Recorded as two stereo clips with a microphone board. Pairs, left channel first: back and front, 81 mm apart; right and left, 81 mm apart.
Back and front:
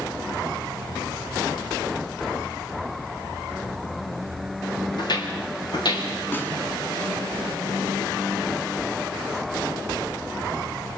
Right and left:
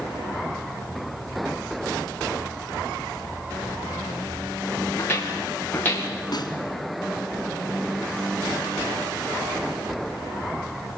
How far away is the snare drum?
About 3 m.